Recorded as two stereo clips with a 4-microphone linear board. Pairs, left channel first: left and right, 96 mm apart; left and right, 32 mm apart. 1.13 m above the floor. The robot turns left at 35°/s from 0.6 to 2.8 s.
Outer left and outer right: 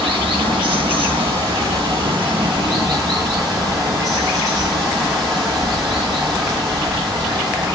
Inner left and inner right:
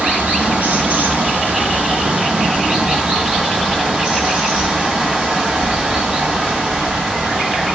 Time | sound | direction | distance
0.0 | running water | 60° right | 2.5 m